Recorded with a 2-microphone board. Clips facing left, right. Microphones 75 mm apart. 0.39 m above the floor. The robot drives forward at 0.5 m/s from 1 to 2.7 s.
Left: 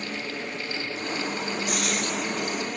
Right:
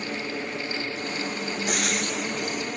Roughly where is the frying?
Right.